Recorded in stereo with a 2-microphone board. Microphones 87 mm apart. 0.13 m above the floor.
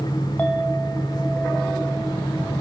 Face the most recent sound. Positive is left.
turn(degrees=15)  # may be behind; listen again after turning